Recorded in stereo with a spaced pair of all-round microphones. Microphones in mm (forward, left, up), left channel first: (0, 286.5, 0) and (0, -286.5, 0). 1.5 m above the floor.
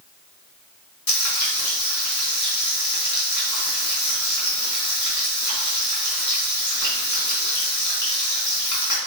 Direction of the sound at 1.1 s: 30° left (ahead or behind).